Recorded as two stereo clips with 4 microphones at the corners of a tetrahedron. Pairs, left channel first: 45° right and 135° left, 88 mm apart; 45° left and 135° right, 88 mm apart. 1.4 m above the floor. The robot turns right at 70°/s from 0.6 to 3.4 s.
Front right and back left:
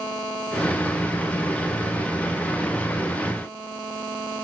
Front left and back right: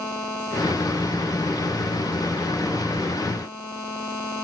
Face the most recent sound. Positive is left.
No sound to turn to.